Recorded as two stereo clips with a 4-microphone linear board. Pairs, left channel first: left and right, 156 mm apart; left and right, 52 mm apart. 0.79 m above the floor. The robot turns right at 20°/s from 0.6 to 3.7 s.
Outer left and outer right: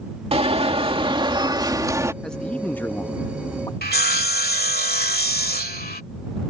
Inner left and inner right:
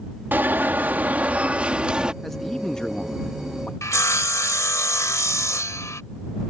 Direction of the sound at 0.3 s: 55° right.